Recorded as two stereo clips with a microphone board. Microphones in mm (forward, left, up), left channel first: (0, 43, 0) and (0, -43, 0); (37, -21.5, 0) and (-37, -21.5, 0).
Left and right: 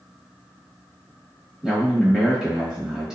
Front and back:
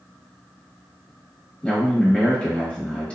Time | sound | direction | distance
1.6 | a man speaking | 20° right | 0.9 m